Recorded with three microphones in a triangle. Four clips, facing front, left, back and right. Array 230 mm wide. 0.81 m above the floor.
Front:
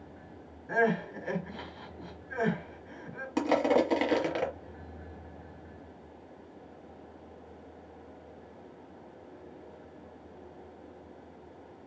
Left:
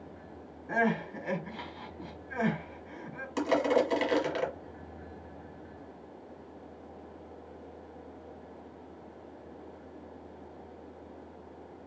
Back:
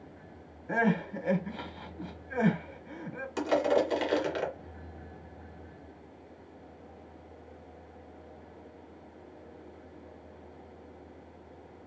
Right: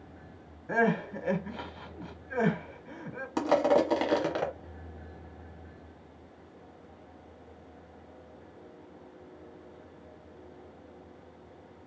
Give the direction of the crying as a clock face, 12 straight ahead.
4 o'clock.